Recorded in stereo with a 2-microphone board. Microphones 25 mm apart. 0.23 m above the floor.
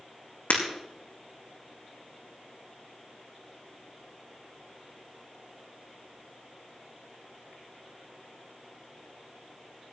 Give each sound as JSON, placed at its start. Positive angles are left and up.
{"t": 0.5, "sound": "breaking glass", "side_deg": 85, "distance_m": 5.0}